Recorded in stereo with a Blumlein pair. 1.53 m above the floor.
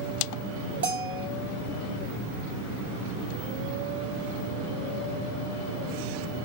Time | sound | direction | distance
0.8 | a bell | 65° right | 2.5 m